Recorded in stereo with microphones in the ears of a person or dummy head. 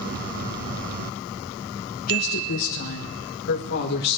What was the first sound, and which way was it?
A woman speaking, 40° left (ahead or behind).